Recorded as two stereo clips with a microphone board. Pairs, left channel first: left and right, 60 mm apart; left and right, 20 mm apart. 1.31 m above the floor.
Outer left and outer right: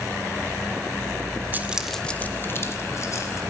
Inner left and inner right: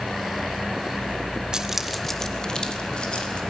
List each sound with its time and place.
1.5 s keys jangling: 30° right (ahead or behind), 0.7 m; by 3.4 s 60° left (ahead or behind), 1.8 m